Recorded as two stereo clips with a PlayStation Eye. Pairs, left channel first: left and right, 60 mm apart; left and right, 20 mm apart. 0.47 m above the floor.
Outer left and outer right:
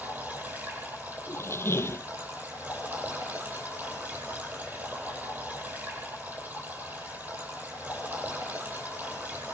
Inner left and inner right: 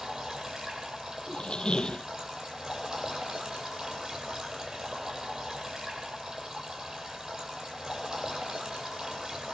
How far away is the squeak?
About 0.6 m.